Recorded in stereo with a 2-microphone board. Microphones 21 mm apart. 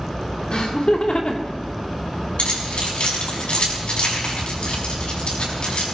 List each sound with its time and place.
0.5 s laughter: 50° left (ahead or behind), 2.5 m; by 1.6 s 65° left (ahead or behind), 2 m
2.4 s keys jangling: 75° left (ahead or behind), 5.5 m